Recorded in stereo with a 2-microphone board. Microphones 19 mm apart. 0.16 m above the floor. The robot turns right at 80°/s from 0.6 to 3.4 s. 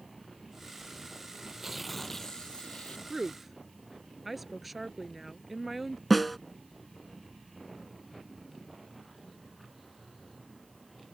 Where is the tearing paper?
30° right; by 3.0 s 95° left.